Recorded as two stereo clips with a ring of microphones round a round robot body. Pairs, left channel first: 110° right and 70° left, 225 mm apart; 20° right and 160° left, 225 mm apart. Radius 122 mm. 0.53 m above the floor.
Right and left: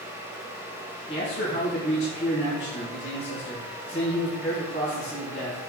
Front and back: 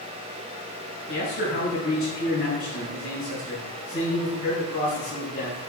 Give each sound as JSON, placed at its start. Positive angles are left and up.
{"t": 1.1, "sound": "a man speaking", "azimuth_deg": -50, "distance_m": 5.5}